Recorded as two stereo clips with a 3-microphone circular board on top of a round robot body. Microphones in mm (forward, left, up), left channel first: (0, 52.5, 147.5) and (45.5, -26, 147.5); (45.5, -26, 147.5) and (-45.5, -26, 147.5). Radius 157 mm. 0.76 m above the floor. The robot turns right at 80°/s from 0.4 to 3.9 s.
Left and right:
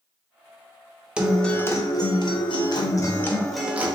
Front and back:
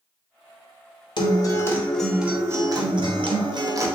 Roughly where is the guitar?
Ahead.